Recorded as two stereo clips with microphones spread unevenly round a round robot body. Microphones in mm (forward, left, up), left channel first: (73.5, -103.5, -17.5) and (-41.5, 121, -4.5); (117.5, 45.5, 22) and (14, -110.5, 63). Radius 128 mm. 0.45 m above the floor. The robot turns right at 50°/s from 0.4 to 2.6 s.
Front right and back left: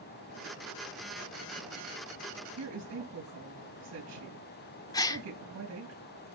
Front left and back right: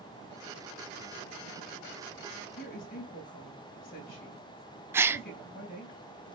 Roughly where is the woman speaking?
Left.